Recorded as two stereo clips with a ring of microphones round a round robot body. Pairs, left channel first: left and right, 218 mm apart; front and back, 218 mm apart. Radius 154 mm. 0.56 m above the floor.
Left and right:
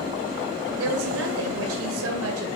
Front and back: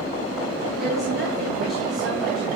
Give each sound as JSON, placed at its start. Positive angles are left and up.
{"t": 0.8, "sound": "a woman speaking", "azimuth_deg": -90, "distance_m": 2.5}